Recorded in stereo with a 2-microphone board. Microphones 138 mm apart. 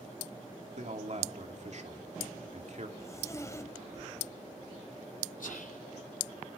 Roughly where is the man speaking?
Right.